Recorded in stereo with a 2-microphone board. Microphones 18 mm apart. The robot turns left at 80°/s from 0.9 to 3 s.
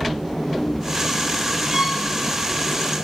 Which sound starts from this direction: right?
A violin, at 1.7 s.